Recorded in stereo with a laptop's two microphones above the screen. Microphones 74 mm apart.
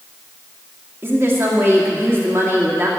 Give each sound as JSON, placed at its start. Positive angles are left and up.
{"t": 1.0, "sound": "a woman speaking", "side_deg": -35, "distance_m": 2.0}